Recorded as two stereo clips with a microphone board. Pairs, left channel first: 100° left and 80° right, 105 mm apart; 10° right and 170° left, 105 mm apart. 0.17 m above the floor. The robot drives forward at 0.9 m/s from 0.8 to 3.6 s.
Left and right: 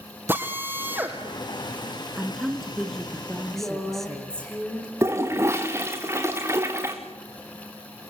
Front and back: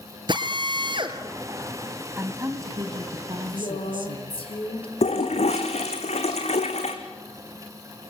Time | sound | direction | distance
0.3 | a drill | 150° right | 3 m
2.2 | a woman speaking | 160° right | 1.6 m
3.5 | a woman speaking | 20° left | 8 m
5.0 | a toilet flushing | 15° right | 3 m